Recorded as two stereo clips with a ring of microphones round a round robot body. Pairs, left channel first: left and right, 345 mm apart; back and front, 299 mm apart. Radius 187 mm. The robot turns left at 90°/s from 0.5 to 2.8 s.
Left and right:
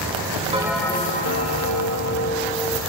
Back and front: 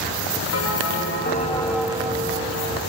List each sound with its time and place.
0.5 s a bell: 160° right, 1.5 m; by 2.8 s 5° right, 1.5 m